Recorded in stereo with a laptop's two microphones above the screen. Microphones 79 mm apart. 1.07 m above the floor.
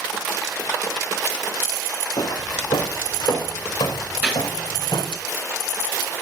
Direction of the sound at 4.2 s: 25° right (ahead or behind).